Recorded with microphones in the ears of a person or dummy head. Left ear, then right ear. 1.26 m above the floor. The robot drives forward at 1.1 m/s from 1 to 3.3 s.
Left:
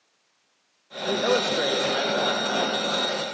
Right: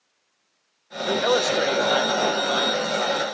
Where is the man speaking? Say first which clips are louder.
Right 2 dB; 65° right (ahead or behind), 1.1 m; by 3.2 s 20° right (ahead or behind), 3 m.